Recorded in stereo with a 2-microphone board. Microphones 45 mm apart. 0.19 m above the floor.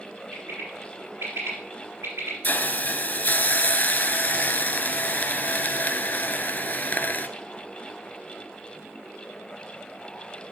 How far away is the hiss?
About 0.7 m.